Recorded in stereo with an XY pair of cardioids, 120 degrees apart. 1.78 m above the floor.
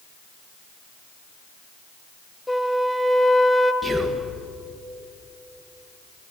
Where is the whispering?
5° right, 1.7 m.